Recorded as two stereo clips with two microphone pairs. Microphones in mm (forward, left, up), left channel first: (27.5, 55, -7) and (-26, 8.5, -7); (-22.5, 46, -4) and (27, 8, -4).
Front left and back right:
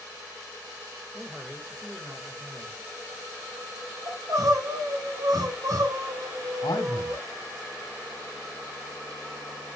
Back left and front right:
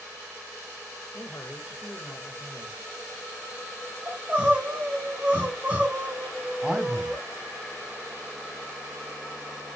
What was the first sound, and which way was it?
A man speaking, 160° left.